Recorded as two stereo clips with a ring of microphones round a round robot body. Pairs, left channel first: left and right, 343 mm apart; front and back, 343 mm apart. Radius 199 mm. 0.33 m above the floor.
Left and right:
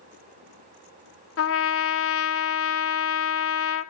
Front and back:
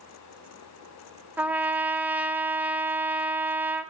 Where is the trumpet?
95° left, 0.6 m.